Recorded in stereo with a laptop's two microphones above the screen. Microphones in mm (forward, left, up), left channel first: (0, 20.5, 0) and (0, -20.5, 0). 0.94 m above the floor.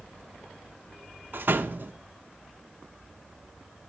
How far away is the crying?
I don't hear crying.